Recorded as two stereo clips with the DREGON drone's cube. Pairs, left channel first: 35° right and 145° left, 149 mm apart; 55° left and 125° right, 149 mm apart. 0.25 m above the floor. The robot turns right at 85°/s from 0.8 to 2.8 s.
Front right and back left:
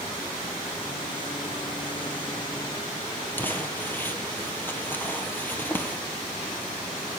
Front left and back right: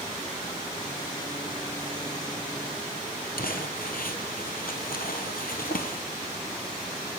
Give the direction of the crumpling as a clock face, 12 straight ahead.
11 o'clock.